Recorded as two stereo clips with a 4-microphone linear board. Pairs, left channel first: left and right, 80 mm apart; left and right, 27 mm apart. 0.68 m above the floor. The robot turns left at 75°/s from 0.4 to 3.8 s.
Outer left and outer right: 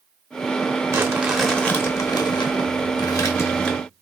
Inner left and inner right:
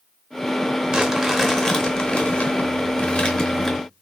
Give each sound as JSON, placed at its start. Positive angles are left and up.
{"t": 0.9, "sound": "crumpling", "azimuth_deg": -140, "distance_m": 0.8}